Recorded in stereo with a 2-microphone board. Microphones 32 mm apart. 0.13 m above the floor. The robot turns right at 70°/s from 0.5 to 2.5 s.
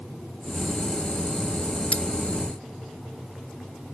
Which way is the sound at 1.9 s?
40° left (ahead or behind).